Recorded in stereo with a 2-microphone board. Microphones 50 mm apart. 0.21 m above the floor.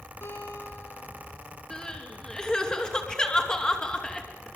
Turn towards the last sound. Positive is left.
turn(degrees=20)  # may be behind; listen again after turning